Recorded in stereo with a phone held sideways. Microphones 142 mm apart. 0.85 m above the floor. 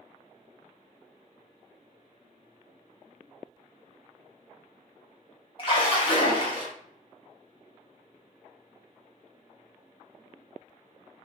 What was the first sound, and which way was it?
A splash, 40° left (ahead or behind).